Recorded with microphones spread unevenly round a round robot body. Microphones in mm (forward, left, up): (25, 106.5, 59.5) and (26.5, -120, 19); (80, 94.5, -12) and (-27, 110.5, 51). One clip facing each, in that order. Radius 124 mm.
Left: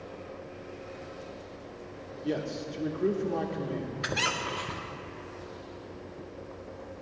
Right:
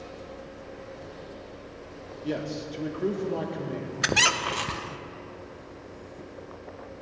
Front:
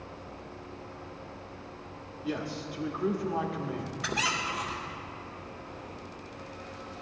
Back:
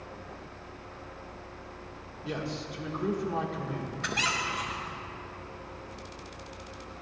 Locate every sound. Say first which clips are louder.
2.2 s a man speaking: right 1 dB, front 1 dB; 20° right, 1.3 m
4.0 s a squeak: right 4 dB, front 1 dB; 80° right, 0.5 m